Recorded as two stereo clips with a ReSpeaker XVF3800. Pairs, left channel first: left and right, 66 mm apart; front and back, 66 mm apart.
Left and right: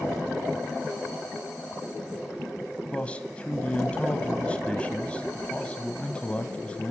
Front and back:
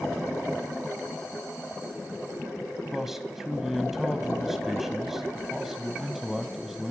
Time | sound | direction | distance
2.9 | a man speaking | 105° left | 0.9 m